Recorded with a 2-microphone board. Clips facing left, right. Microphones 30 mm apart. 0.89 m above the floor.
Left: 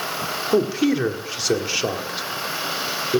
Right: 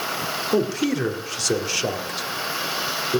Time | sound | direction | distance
0.5 | a man speaking | 20° left (ahead or behind) | 1.9 m